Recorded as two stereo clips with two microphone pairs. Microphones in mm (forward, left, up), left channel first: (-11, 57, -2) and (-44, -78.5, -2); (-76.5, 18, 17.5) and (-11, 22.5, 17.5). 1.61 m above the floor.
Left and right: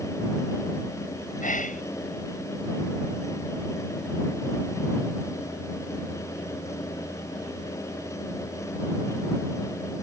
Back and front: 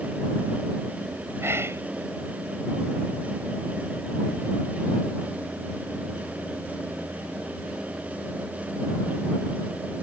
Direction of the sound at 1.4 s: 55° left.